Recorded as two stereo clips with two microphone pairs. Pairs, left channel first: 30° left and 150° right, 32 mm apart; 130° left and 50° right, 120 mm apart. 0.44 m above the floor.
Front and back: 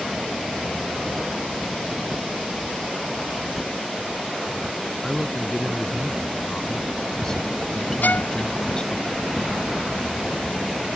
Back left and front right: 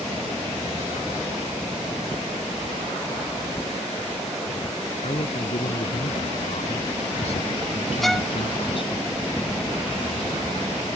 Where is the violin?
40° left.